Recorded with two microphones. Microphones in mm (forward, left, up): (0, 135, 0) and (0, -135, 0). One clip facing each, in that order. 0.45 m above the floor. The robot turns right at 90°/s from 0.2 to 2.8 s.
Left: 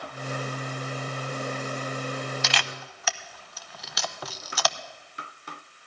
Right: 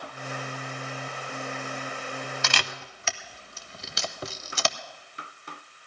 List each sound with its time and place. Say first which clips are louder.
2.4 s a camera shutter: left 1 dB; 60° right (ahead or behind), 0.7 m; by 4.8 s 30° right (ahead or behind), 0.7 m